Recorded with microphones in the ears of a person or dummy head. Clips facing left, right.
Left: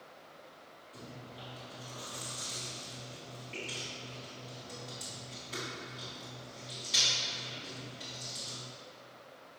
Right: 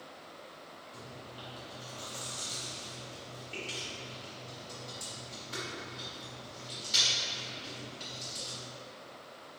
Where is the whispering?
No whispering in this recording.